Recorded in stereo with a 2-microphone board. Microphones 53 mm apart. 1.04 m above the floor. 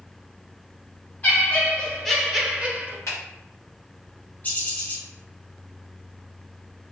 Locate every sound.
1.2 s laughter: 30° left (ahead or behind), 1.5 m; by 3.0 s 35° right (ahead or behind), 0.9 m
3.1 s a finger snap: 70° left (ahead or behind), 1.9 m
4.4 s a bird: 30° left (ahead or behind), 1.1 m